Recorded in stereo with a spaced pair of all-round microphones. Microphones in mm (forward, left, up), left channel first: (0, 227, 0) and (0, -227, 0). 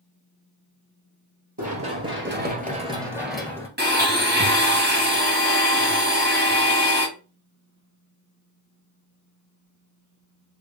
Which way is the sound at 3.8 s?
25° right (ahead or behind).